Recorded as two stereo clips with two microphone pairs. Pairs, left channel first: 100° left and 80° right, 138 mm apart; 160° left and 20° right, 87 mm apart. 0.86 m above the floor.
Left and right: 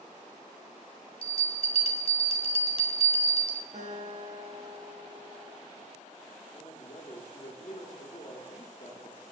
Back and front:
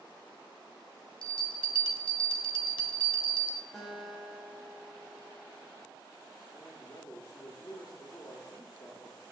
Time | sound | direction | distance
1.2 | a bell | 145° left | 1.5 m
3.7 | a guitar | 110° right | 3.5 m
6.5 | a man speaking | 125° left | 2.5 m